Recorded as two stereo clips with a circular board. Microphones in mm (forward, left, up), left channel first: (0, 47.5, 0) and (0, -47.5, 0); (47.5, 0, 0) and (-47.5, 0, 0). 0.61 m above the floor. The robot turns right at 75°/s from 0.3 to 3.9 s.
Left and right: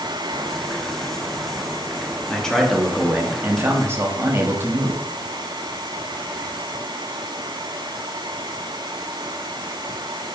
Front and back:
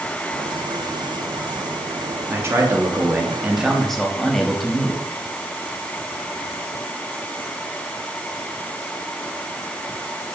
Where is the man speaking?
155° left, 0.5 m; by 5.0 s 85° right, 0.5 m.